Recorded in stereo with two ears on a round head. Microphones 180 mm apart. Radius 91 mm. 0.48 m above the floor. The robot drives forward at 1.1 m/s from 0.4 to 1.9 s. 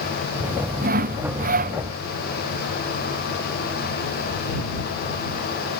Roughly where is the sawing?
Right.